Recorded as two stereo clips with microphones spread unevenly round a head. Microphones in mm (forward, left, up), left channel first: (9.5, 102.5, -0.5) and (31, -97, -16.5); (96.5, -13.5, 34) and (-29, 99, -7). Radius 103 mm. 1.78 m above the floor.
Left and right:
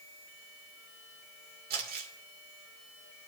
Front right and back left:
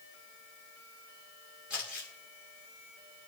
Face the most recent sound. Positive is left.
turn(degrees=-135)